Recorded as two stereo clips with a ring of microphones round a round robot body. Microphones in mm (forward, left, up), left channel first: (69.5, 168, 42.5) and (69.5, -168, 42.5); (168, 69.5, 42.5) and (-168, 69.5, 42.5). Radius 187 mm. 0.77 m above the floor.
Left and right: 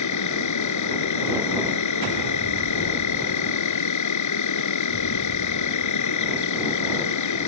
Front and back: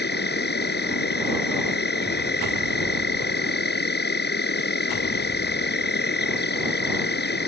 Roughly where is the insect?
Ahead left.